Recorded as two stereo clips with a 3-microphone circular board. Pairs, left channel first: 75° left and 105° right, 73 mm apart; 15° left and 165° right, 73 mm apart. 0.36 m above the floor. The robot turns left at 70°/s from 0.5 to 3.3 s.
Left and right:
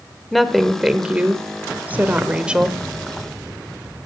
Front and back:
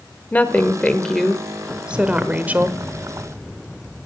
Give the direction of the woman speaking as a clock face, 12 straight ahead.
12 o'clock.